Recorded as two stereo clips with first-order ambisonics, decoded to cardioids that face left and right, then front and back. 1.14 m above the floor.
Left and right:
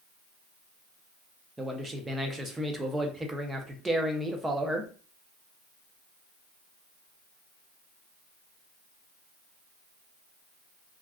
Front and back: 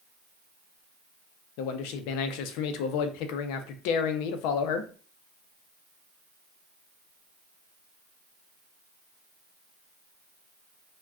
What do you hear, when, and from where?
1.6 s a man speaking: 10° right, 0.5 m